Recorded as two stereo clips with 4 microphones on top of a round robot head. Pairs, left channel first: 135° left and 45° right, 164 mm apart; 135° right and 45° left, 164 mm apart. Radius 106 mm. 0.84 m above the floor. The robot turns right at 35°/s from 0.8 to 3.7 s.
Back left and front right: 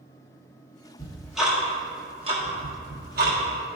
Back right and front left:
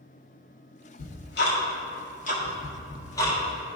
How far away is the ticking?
About 1.7 m.